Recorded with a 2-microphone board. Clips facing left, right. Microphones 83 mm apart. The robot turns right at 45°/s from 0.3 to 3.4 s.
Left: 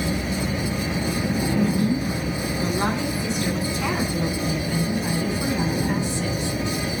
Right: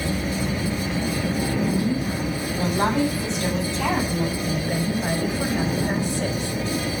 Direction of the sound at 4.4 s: 60° right (ahead or behind).